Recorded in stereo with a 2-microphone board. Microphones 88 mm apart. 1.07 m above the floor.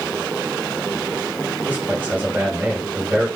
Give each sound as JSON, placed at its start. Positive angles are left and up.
{"t": 1.7, "sound": "a man speaking", "side_deg": -20, "distance_m": 4.5}